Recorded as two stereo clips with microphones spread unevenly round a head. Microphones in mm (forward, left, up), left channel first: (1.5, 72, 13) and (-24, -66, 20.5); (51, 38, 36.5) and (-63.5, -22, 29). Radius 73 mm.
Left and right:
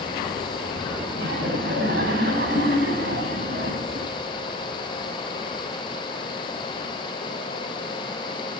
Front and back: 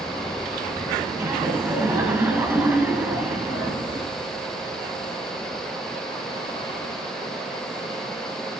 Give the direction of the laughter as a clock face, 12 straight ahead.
2 o'clock.